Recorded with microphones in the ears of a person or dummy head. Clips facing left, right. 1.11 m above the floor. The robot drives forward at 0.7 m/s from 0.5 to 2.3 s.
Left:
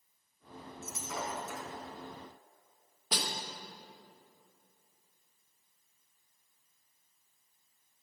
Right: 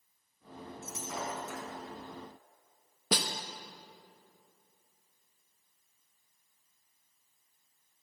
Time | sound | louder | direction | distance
0.8 | breaking glass | even | 60° left (ahead or behind) | 2.5 m
3.1 | a snare drum | right 5 dB | 60° right (ahead or behind) | 0.8 m